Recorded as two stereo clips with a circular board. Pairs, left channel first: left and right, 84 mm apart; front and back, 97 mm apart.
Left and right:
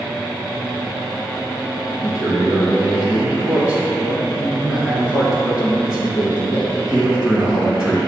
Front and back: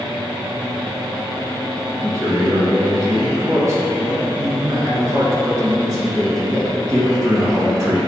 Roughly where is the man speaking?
Behind right.